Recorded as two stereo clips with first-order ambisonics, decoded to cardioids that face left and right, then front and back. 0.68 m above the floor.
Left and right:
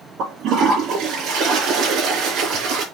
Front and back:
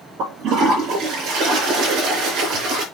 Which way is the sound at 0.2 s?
135° right.